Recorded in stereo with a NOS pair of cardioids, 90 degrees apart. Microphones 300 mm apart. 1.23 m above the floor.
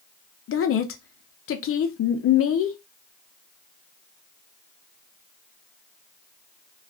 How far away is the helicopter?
I don't hear a helicopter.